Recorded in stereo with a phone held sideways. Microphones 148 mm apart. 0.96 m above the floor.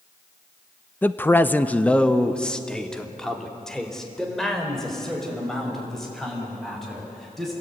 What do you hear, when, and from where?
1.0 s a man speaking: 10° left (ahead or behind), 0.7 m; by 7.5 s centre (ahead or behind), 8.5 m